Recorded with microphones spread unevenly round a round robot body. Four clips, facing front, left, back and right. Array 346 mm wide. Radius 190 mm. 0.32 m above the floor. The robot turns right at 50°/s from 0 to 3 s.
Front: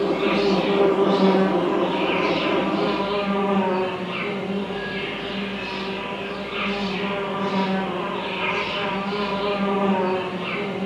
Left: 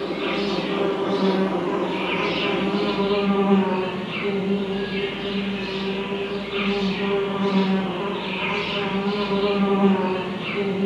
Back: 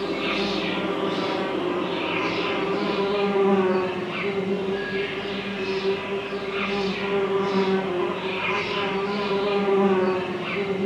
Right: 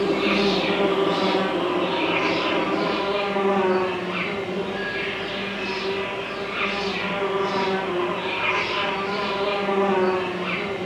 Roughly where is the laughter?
No laughter in this recording.